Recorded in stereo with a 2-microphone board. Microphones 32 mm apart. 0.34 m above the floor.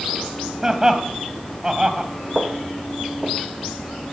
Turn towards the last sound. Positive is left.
turn(degrees=-35)  # may be behind; listen again after turning